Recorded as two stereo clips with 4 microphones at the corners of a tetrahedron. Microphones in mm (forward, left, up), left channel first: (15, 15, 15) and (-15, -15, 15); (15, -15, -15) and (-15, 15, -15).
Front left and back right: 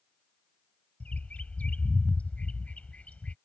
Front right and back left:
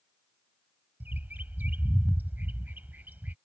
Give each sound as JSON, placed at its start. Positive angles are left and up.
{"t": 1.0, "sound": "a bird", "azimuth_deg": 95}